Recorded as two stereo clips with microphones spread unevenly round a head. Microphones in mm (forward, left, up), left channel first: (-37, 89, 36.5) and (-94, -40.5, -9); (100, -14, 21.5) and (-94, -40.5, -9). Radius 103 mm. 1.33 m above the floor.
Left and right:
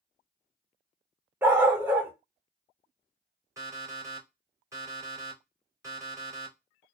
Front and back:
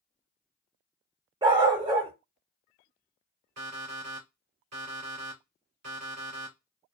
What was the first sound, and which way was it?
A dog barking, 140° left.